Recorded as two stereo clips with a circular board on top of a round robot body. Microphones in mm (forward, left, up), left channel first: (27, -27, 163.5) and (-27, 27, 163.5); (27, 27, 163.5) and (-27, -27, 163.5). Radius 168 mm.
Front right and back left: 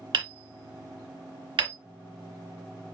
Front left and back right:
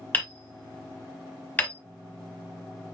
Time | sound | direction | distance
0.1 | hammering | 115° left | 1.1 m